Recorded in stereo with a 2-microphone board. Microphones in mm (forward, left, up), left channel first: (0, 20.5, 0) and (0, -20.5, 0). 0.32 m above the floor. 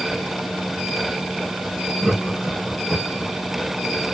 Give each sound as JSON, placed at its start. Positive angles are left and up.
{"t": 2.0, "sound": "laughter", "side_deg": -15, "distance_m": 1.7}